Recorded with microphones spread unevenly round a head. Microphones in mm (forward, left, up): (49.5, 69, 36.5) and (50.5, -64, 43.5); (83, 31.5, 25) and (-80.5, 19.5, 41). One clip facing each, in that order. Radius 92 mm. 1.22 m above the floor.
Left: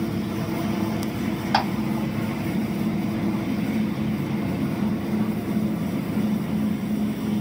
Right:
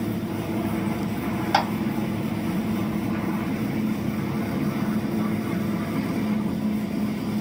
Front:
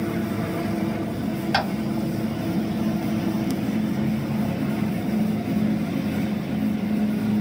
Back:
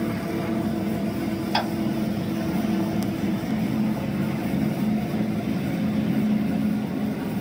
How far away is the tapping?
About 1.4 m.